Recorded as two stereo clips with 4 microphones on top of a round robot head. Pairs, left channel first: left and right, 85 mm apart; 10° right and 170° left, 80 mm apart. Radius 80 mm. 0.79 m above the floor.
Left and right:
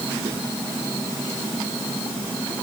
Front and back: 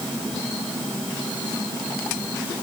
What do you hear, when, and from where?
Only background noise.